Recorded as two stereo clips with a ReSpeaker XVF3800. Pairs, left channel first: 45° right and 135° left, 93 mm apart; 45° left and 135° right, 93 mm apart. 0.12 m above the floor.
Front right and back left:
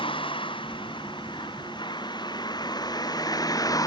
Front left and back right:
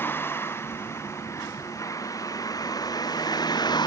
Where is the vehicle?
20° right; by 3.9 s 5° left.